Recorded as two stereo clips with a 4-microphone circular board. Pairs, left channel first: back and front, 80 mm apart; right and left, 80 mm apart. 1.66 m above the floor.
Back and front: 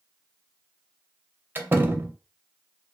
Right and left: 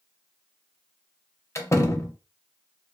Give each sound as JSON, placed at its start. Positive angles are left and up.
{"t": 1.6, "sound": "a door slam", "azimuth_deg": -55, "distance_m": 0.5}